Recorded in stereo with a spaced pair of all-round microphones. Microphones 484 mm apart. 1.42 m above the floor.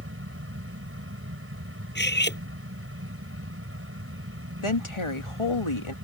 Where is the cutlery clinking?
20° left (ahead or behind).